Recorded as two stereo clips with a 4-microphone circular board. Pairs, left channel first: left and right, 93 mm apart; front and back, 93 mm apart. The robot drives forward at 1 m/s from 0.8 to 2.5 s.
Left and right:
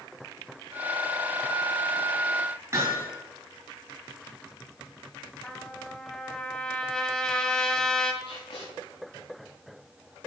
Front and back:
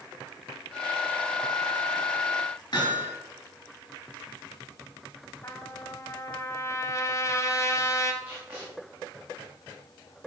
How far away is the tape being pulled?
About 4 m.